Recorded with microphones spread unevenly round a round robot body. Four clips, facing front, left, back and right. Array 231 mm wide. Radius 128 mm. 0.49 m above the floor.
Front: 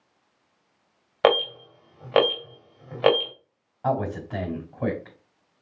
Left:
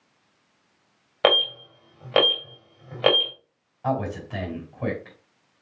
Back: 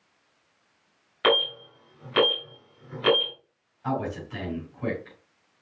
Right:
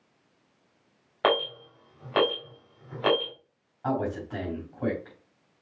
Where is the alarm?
35° left, 3 m.